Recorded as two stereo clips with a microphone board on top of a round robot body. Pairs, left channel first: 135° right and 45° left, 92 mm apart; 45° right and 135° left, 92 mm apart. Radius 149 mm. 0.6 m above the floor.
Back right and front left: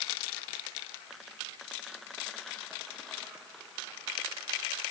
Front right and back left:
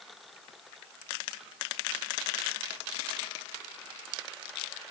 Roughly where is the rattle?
I don't hear a rattle.